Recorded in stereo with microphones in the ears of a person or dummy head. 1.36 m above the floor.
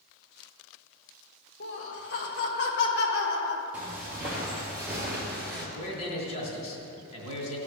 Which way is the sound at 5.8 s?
85° left.